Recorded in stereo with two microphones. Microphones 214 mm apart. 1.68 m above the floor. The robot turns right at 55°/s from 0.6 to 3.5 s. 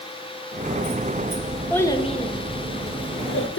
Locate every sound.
1.7 s a child speaking: 5° left, 1.1 m; by 3.6 s 105° left, 1.1 m